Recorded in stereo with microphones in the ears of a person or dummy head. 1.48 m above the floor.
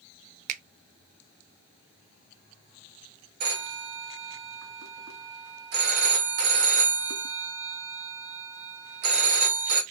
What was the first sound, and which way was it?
A finger snap, 45° right (ahead or behind).